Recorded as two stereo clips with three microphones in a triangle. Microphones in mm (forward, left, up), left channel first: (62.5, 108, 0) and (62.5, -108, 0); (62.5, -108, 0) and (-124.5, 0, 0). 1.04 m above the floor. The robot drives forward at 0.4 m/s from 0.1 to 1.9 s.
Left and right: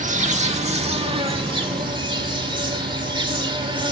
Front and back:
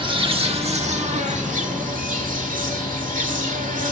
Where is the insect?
145° right, 1.2 m; by 3.9 s 155° right, 1.8 m.